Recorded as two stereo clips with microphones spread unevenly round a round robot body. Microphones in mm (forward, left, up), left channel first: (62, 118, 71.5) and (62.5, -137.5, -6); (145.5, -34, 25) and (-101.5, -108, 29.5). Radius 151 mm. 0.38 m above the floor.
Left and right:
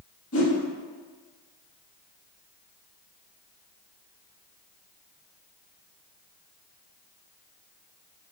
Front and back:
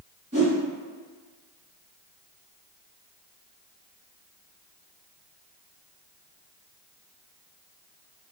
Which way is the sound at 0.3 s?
140° left.